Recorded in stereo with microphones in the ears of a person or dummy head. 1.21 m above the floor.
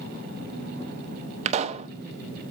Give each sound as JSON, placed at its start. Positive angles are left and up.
{"t": 1.4, "sound": "a pop", "side_deg": -40, "distance_m": 0.7}